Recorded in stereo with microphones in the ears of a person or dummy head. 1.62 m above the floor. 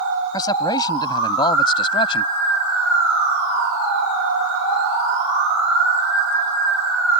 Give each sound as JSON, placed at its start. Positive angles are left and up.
{"t": 0.3, "sound": "a man speaking", "side_deg": 20}